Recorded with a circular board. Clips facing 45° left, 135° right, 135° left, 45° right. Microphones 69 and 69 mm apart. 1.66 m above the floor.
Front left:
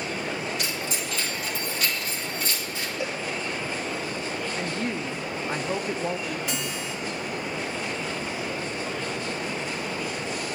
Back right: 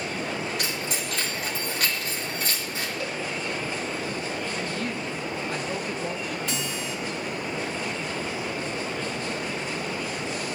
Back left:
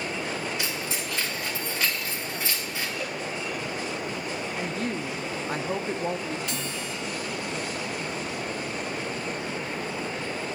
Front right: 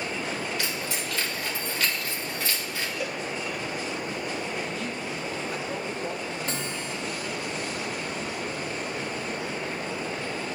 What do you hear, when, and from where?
0.6 s keys jangling: 155° right, 2.5 m
3.0 s a cowbell: 20° left, 0.7 m
4.6 s a woman speaking: 100° left, 0.5 m
6.5 s a guitar: 20° right, 1.7 m